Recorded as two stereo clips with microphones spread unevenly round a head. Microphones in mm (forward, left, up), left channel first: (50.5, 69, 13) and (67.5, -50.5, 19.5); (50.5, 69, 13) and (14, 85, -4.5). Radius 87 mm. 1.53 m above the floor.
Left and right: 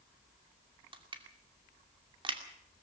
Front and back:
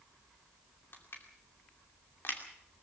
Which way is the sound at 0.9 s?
40° right.